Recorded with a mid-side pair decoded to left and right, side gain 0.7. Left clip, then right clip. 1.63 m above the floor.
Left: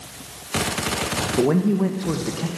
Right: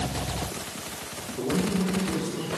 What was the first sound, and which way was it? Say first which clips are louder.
A man speaking: left 6 dB; 55° left.